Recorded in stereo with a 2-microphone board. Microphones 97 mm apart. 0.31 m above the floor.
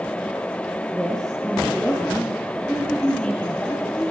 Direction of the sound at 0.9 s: 5° left (ahead or behind).